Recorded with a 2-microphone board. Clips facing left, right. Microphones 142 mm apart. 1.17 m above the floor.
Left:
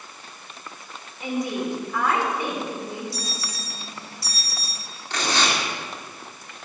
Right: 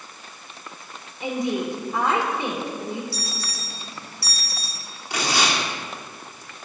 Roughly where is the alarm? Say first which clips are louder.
Even; centre.